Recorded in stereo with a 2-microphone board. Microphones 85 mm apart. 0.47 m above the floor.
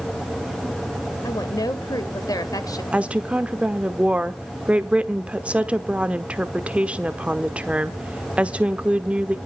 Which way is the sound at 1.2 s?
45° left (ahead or behind).